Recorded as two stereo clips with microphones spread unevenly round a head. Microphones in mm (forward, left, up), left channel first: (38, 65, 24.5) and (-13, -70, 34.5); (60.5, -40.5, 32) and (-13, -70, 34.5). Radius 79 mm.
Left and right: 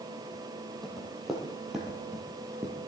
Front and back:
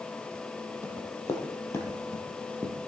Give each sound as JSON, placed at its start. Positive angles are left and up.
{"t": 0.8, "sound": "running footsteps", "azimuth_deg": -20, "distance_m": 3.0}